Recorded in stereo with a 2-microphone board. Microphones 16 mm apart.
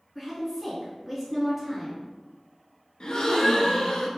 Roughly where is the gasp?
Left.